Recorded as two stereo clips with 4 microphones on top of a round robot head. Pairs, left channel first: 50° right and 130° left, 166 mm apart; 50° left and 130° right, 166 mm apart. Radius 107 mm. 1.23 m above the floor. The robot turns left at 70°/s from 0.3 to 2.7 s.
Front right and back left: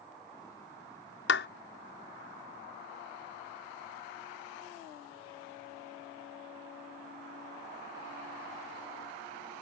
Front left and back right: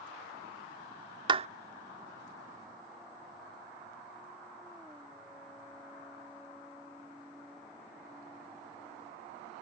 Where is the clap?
70° right; by 1.5 s 80° right.